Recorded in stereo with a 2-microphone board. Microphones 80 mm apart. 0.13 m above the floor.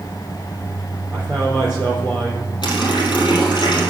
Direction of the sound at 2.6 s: 70° left (ahead or behind).